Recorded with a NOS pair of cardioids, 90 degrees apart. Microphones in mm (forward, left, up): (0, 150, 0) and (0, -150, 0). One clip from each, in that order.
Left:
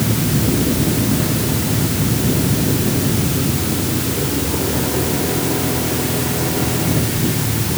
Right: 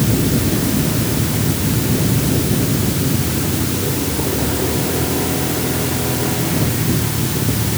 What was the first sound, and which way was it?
Only background noise.